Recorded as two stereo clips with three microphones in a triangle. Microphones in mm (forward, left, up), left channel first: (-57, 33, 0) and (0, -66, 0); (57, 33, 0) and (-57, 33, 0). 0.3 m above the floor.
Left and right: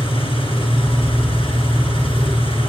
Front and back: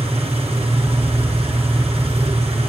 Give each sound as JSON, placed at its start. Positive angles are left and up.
{"t": 0.0, "sound": "an engine running", "azimuth_deg": 150, "distance_m": 4.0}